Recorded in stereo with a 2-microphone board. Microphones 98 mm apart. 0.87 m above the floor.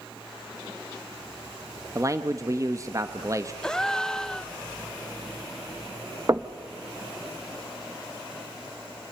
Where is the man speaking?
35° right (ahead or behind), 1.0 m.